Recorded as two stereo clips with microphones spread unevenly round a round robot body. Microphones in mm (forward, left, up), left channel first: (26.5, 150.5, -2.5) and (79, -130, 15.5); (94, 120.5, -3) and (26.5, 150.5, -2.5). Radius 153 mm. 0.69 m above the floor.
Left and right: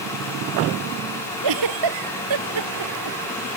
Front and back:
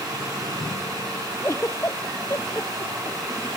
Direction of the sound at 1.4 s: 100° right.